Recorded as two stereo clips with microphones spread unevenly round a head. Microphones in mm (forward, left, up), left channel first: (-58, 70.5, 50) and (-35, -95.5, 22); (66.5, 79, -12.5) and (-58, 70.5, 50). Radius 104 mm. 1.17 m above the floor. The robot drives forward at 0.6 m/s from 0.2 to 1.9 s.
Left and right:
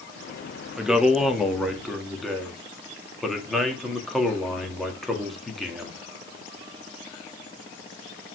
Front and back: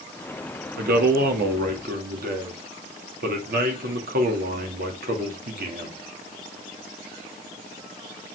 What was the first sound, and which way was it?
A man speaking, 170° right.